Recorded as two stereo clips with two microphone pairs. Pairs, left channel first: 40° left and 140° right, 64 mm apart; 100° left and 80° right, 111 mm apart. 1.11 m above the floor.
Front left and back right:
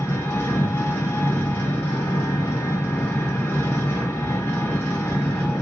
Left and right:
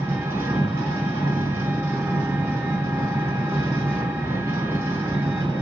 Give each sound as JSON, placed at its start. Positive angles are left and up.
{"t": 0.0, "sound": "an engine running", "azimuth_deg": -10, "distance_m": 1.2}